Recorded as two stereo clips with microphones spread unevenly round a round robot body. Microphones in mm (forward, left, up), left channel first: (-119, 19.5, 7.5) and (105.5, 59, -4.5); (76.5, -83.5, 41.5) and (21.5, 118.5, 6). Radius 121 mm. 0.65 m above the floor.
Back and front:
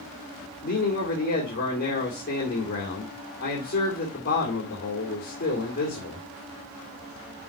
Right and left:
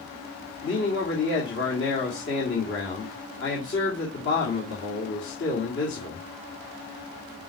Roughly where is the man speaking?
Behind right.